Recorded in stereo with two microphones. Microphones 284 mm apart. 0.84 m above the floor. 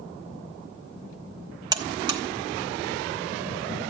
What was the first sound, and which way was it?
A buzzer, 15° right (ahead or behind).